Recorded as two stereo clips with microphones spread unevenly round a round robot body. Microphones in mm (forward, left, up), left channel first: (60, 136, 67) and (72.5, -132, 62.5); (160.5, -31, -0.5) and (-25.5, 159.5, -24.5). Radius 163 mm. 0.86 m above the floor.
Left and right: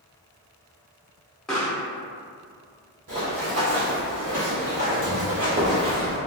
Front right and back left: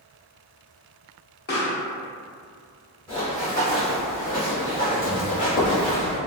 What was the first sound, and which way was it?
A pop, 5° left.